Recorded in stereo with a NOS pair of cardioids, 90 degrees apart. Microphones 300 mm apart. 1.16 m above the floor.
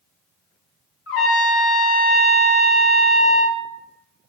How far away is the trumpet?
About 0.8 m.